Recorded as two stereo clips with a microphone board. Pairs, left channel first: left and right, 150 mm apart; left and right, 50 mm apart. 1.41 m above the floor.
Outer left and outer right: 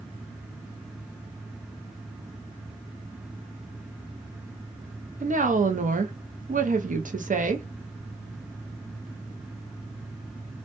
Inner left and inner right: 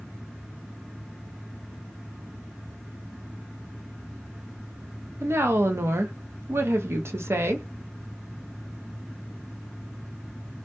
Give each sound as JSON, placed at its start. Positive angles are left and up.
{"t": 5.2, "sound": "a woman speaking", "side_deg": -60, "distance_m": 0.5}